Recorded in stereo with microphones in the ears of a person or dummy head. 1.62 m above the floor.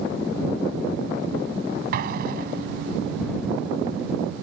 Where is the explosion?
60° right (ahead or behind).